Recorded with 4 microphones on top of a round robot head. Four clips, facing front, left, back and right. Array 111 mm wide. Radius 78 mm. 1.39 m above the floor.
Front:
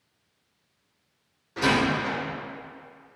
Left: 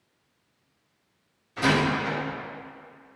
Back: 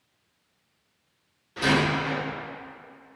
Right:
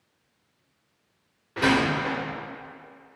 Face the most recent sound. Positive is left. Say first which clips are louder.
# right 1 dB, even
turn(degrees=-75)